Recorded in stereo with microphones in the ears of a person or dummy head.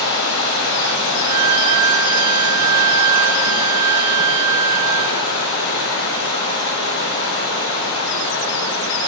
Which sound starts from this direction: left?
Running water, at 0.0 s.